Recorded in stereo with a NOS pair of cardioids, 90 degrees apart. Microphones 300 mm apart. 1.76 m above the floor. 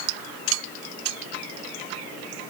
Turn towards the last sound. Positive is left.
No sound to turn to.